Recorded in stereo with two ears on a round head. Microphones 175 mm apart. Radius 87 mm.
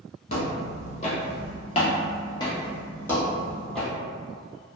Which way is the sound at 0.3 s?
35° left (ahead or behind).